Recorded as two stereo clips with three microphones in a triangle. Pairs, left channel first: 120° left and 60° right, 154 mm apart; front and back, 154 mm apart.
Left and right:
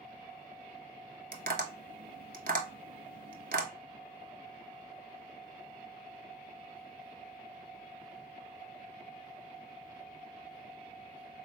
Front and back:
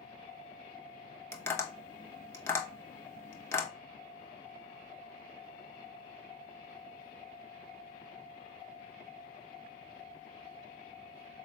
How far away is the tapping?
About 0.8 m.